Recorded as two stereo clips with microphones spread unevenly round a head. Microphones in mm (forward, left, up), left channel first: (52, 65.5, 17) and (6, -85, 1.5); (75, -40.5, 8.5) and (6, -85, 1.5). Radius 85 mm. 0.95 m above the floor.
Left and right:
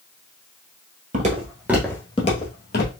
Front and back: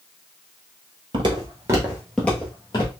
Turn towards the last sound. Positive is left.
turn(degrees=80)